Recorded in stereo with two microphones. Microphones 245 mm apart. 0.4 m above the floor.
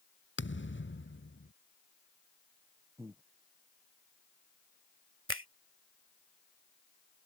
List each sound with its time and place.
0.4 s a thud: 50° left (ahead or behind)
3.0 s breathing: 10° right (ahead or behind)
5.3 s a finger snap: 55° right (ahead or behind)